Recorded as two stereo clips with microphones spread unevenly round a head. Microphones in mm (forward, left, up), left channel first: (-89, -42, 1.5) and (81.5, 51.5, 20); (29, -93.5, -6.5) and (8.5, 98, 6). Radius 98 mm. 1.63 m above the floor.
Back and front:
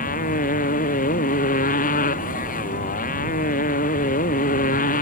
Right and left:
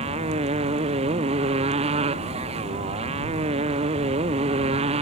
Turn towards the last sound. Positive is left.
turn(degrees=160)